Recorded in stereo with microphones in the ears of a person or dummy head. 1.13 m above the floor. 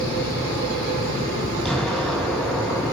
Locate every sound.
1.6 s an explosion: 5° left (ahead or behind), 8.5 m